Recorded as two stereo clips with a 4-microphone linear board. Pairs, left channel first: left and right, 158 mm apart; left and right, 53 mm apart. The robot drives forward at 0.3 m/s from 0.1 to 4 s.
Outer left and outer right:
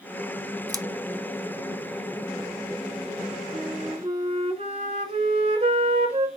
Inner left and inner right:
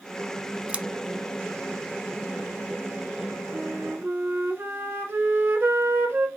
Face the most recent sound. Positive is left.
turn(degrees=-45)  # may be behind; listen again after turning